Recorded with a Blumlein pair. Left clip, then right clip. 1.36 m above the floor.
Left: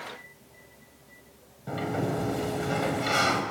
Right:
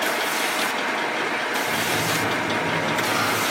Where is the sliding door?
15° left, 5 m.